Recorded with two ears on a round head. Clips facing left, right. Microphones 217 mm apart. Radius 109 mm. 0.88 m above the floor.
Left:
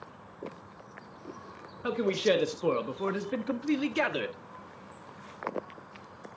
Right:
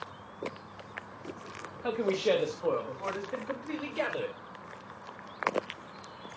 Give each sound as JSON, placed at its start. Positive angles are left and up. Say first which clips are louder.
{"t": 1.8, "sound": "a man speaking", "louder": "left 1 dB", "side_deg": 15, "distance_m": 1.5}